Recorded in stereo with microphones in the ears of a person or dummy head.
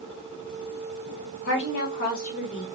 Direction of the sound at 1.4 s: 65° left (ahead or behind).